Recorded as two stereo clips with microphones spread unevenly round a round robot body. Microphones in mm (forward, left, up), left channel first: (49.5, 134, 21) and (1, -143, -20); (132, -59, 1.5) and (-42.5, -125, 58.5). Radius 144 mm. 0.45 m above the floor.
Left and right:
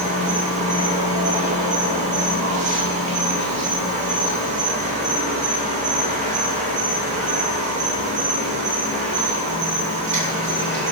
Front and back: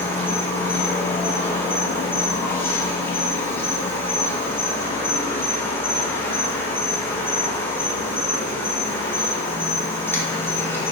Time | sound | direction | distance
0.0 | an insect | 45° right | 0.8 m